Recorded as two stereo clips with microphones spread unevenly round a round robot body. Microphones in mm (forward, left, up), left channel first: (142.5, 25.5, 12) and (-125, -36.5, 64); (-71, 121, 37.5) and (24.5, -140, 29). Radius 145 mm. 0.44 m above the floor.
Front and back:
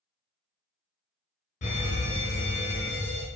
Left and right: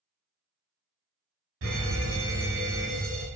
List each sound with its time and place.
1.6 s a fire alarm: 40° right, 3.5 m